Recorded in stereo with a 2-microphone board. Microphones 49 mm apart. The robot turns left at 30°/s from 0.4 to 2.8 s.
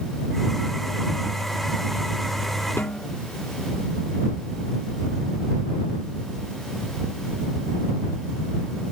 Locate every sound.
2.8 s a snare drum: 55° left (ahead or behind)